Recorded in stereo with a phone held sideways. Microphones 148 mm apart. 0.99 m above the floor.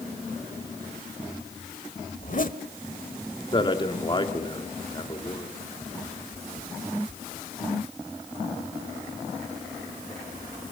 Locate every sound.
2.2 s a zipper: 60° left (ahead or behind), 1.4 m
3.5 s a man speaking: 30° left (ahead or behind), 3 m